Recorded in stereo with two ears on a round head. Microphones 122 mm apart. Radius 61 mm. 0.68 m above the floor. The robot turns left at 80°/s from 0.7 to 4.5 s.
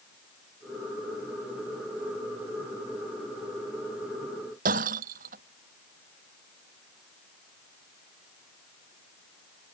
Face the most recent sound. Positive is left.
turn(degrees=-70)  # may be behind; listen again after turning